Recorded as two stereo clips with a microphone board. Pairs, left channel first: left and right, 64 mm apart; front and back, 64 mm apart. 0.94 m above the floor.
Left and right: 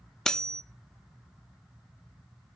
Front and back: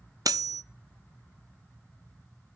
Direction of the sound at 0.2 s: 170° left.